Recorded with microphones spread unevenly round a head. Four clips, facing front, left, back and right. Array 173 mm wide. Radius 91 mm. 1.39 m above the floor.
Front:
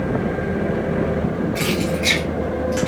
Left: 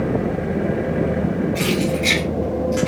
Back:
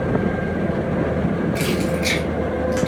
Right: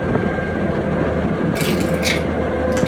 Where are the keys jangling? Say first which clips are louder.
Right 2 dB, even; 100° right, 2 m; by 2.9 s 80° right, 2.0 m.